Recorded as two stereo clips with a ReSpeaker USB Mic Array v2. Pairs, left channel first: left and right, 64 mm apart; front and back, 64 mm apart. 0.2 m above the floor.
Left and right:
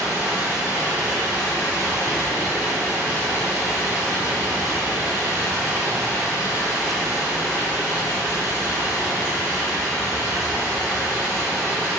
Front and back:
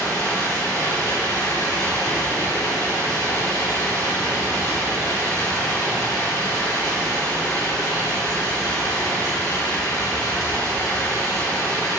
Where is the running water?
25° right, 2.0 m.